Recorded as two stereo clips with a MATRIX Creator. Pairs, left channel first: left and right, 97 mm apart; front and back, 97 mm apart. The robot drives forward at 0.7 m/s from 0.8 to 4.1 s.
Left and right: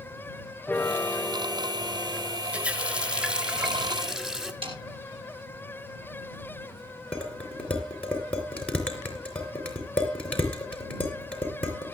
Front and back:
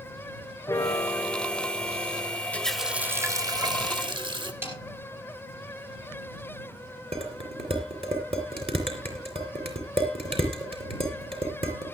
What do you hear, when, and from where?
0.7 s a piano: 25° left, 1.3 m; by 2.4 s 140° left, 1.2 m
2.5 s a running tap: 45° right, 0.6 m; by 4.5 s 170° right, 1.1 m
4.6 s a snare drum: 115° right, 5.5 m
7.1 s dishes clattering: 170° left, 3 m